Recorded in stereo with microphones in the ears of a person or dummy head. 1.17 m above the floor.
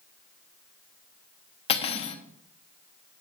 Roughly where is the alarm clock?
I don't hear an alarm clock.